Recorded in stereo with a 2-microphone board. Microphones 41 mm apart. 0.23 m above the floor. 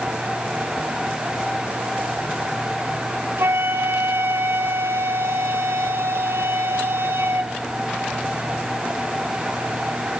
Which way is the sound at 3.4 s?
80° right.